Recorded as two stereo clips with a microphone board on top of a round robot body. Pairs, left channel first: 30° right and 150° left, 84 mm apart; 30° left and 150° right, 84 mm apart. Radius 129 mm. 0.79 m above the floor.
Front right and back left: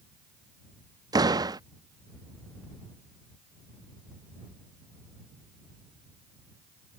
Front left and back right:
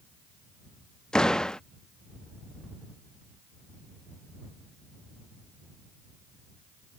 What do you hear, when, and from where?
1.1 s a door slam: 110° left